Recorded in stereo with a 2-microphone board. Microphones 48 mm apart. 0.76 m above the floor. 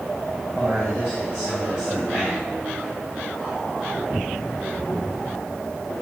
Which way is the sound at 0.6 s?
10° right (ahead or behind).